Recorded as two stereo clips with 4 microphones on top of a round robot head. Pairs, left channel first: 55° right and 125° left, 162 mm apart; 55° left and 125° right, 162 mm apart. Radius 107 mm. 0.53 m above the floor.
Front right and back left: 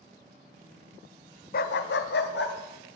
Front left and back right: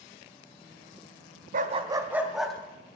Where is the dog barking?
90° right, 0.7 m; by 2.5 s 35° right, 1.4 m.